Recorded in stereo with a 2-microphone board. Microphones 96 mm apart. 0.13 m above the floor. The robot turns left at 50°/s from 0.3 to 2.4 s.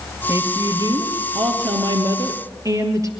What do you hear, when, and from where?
0.3 s a woman speaking: 35° right, 3 m; by 3.1 s 140° right, 3 m